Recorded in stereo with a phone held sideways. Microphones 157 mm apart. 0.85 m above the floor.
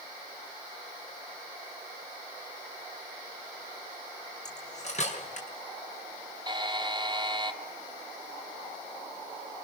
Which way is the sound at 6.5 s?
30° right (ahead or behind).